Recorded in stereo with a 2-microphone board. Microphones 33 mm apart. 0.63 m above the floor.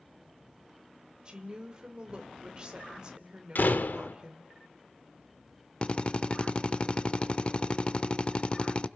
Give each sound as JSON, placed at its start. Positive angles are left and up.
{"t": 1.2, "sound": "a woman speaking", "side_deg": -25, "distance_m": 2.5}
{"t": 3.5, "sound": "a door slam", "side_deg": 75, "distance_m": 1.0}
{"t": 5.8, "sound": "a drill", "side_deg": 35, "distance_m": 0.7}